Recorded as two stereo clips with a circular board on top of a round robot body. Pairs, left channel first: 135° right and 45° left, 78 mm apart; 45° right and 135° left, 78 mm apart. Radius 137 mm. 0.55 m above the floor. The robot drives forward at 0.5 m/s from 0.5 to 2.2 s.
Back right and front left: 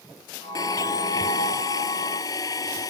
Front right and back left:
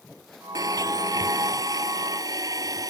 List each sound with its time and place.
0.6 s a blender: straight behind